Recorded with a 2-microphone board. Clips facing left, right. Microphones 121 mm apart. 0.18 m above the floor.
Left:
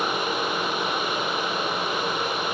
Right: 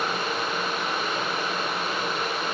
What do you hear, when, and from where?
Only background noise.